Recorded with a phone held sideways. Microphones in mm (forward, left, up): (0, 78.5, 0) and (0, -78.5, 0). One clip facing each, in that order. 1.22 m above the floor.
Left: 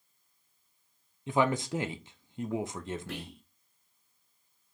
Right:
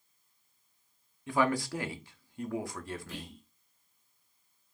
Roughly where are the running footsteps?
No running footsteps in this recording.